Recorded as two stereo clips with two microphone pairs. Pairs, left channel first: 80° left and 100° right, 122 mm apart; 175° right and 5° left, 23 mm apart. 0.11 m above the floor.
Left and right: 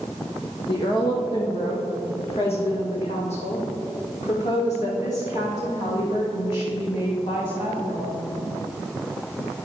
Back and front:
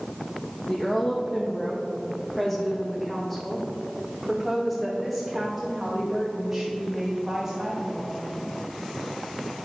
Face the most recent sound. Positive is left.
turn(degrees=90)